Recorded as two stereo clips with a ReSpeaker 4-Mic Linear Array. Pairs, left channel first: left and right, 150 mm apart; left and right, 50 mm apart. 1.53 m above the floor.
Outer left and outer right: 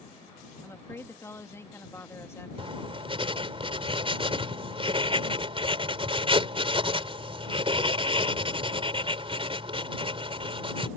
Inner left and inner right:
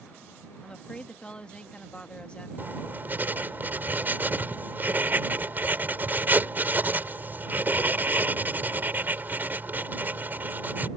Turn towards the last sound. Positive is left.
turn(degrees=-40)  # may be behind; listen again after turning